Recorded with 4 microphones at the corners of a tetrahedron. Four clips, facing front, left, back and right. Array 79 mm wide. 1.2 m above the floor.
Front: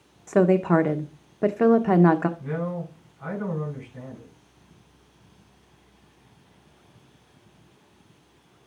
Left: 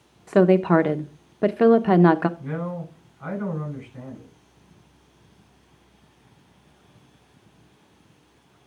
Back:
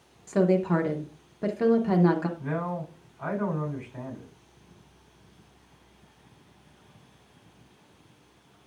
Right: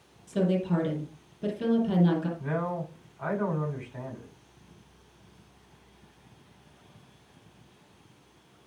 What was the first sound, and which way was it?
A woman speaking, 65° left.